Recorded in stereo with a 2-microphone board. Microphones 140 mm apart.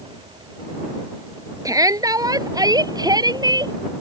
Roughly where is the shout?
Right.